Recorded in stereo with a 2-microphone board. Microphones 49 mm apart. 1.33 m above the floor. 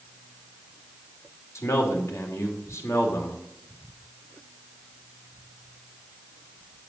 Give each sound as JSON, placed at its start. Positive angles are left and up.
{"t": 1.6, "sound": "a man speaking", "side_deg": 80, "distance_m": 3.0}